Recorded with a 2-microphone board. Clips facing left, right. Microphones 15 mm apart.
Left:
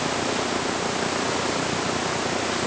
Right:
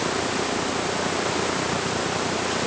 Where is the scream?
No scream in this recording.